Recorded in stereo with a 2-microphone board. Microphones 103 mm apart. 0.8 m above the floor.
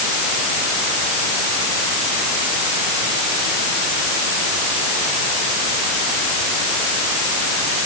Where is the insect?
No insect in this recording.